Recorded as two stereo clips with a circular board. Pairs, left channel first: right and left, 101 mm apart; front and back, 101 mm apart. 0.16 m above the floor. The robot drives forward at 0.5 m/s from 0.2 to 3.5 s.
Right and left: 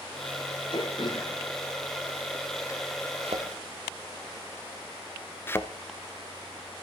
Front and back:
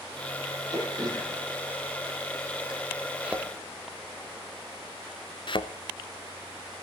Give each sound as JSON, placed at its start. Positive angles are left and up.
{"t": 0.7, "sound": "throat clearing", "azimuth_deg": -130, "distance_m": 3.0}
{"t": 3.2, "sound": "a thud", "azimuth_deg": 100, "distance_m": 1.5}
{"t": 5.5, "sound": "a thud", "azimuth_deg": -25, "distance_m": 0.8}